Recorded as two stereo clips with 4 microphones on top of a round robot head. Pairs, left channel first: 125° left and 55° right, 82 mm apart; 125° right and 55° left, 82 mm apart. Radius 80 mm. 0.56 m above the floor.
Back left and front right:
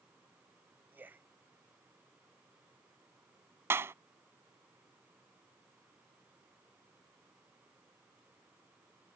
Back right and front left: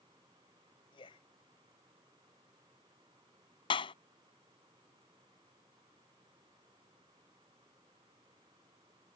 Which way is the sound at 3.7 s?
115° right.